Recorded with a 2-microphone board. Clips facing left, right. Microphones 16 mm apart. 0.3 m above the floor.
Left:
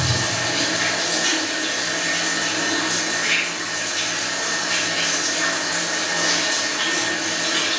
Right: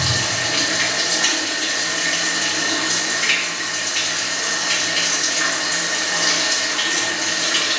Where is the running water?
65° right (ahead or behind), 1.5 m.